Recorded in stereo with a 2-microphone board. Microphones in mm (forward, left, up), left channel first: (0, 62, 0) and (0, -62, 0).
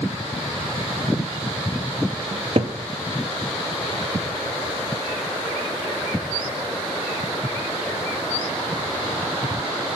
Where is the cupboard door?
60° right (ahead or behind), 0.6 m.